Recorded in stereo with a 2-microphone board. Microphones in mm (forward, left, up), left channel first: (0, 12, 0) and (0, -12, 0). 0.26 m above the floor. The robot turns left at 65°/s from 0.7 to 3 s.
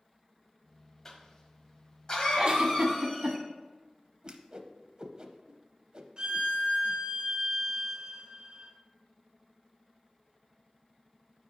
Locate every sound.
1.1 s a cough: 155° left, 1.1 m; by 3.4 s 30° left, 1.1 m
2.4 s a giggle: 50° right, 1.1 m; by 3.4 s 90° right, 1.1 m
4.2 s a whoosh: 35° right (ahead or behind), 0.6 m
6.2 s a violin: 40° right (ahead or behind), 1.8 m